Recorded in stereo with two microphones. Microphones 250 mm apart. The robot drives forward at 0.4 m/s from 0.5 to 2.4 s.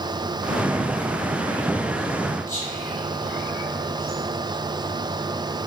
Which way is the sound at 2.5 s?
10° left (ahead or behind).